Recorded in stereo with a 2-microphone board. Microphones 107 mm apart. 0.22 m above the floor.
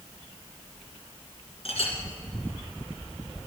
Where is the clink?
65° left (ahead or behind), 2 m.